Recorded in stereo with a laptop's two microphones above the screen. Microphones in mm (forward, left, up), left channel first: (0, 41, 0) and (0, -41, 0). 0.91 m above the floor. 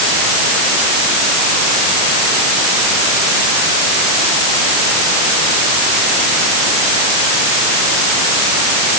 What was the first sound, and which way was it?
Only background noise.